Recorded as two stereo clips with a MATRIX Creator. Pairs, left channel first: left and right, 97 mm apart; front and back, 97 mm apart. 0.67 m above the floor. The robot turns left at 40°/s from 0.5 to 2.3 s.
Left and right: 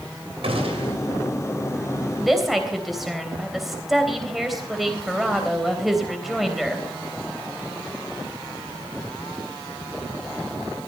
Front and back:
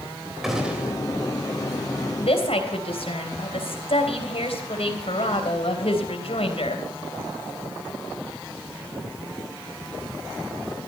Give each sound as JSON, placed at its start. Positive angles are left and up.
{"t": 0.4, "sound": "a gunshot", "azimuth_deg": -95, "distance_m": 3.0}
{"t": 2.2, "sound": "a woman speaking", "azimuth_deg": 5, "distance_m": 3.0}